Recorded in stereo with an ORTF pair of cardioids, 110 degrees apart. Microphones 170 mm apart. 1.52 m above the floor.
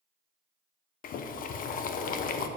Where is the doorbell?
I don't hear a doorbell.